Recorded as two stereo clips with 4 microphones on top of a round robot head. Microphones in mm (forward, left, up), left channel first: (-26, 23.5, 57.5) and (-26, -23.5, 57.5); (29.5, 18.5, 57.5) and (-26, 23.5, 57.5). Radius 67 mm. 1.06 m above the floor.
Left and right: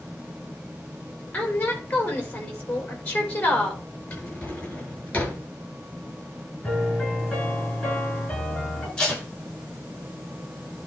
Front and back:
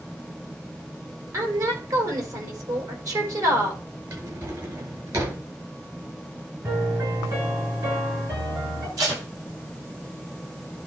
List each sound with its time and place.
1.3 s a woman speaking: 150° left, 4.5 m
4.1 s a drawer: 150° left, 6.5 m
6.6 s a piano: 160° left, 7 m
9.0 s tape being pulled: 165° left, 5.5 m